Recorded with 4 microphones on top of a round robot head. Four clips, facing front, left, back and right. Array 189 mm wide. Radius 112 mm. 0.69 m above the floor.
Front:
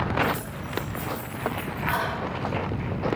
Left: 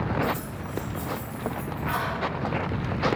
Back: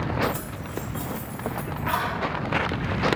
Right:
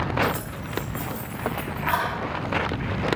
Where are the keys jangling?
115° right, 3.5 m.